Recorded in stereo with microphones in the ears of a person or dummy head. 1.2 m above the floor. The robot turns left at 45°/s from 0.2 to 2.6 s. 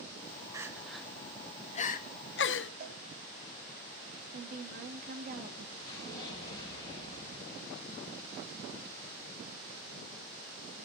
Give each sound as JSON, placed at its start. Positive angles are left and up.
{"t": 0.5, "sound": "crying", "side_deg": -15, "distance_m": 0.8}
{"t": 2.8, "sound": "a cowbell", "side_deg": -50, "distance_m": 3.5}
{"t": 4.3, "sound": "a woman speaking", "side_deg": -50, "distance_m": 1.5}
{"t": 5.8, "sound": "an explosion", "side_deg": 25, "distance_m": 6.5}